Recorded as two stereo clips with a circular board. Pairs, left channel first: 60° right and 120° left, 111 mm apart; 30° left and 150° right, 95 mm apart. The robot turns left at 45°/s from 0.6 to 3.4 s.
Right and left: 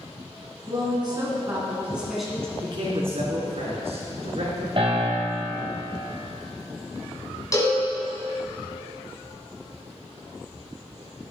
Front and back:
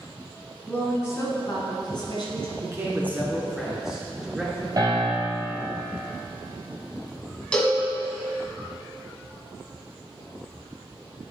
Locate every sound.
0.7 s a woman speaking: 100° left, 2 m; by 2.5 s 20° left, 2 m
2.6 s a man speaking: 165° left, 2.5 m; by 4.7 s 130° left, 2.5 m
4.8 s a piano: 160° left, 2.5 m
7.5 s a cowbell: 40° right, 1.9 m